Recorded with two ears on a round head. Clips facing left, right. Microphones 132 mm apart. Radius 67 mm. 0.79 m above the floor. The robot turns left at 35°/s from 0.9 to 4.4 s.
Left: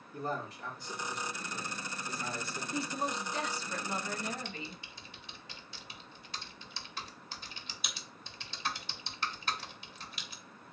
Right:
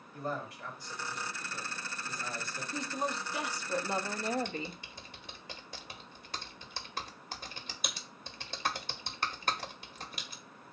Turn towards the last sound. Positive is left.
turn(degrees=-45)  # may be behind; listen again after turning